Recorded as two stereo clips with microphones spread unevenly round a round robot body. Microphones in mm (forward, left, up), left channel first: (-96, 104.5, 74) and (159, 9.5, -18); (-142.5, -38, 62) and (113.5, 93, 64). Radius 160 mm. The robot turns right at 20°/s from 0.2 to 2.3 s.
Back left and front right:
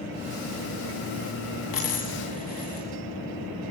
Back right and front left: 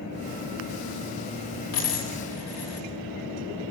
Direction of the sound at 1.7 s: 170° left.